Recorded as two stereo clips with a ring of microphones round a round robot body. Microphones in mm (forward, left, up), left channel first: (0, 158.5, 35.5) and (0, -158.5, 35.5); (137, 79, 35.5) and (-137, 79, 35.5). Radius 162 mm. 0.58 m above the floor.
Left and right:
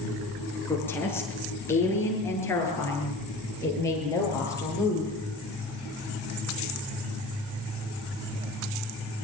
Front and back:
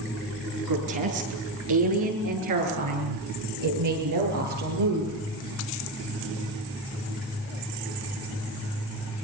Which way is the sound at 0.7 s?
175° left.